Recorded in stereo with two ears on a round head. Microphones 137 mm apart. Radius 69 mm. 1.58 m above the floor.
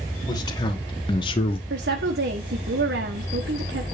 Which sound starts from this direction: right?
A woman speaking, at 1.7 s.